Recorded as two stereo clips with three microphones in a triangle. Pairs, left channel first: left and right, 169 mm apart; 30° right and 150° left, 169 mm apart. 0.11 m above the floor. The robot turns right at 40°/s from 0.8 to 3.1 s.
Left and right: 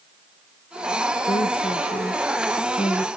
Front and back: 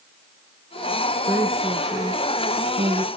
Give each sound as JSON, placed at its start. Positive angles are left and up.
{"t": 1.3, "sound": "a woman speaking", "azimuth_deg": 80, "distance_m": 1.5}